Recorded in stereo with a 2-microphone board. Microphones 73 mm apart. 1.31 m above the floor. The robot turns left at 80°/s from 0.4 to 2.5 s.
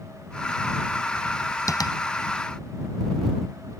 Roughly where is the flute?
I don't hear a flute.